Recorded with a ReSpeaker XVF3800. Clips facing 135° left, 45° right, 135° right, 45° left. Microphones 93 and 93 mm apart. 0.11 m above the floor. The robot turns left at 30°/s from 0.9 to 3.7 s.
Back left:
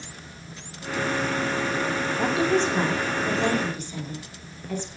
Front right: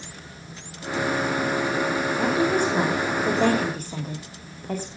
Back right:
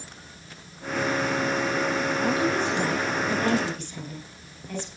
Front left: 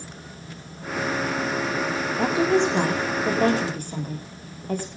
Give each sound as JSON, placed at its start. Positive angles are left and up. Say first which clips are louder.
{"t": 2.2, "sound": "a woman speaking", "louder": "even, front left 7 dB", "azimuth_deg": 45, "distance_m": 6.5}